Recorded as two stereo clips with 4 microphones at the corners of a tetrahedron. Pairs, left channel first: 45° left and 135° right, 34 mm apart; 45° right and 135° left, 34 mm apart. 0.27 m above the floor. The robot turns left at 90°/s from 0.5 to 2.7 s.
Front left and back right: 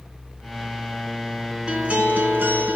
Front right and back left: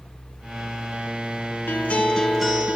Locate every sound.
1.7 s a guitar: 75° right, 2 m; by 2.8 s 170° right, 2 m